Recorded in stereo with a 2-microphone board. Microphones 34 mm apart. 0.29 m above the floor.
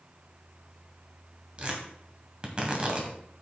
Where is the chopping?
No chopping in this recording.